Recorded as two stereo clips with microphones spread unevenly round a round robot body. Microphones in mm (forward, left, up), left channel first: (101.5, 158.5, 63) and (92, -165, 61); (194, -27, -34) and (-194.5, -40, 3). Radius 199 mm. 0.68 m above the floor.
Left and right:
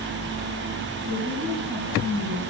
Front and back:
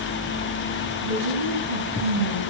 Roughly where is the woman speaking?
Behind.